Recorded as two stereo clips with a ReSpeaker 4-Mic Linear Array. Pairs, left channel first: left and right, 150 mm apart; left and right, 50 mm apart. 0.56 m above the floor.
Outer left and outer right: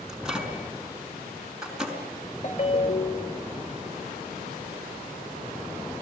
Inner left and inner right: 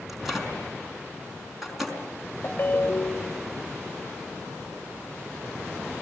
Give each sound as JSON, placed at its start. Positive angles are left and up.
{"t": 0.1, "sound": "a microwave", "side_deg": -5, "distance_m": 5.0}
{"t": 2.4, "sound": "a ringtone", "side_deg": 50, "distance_m": 1.1}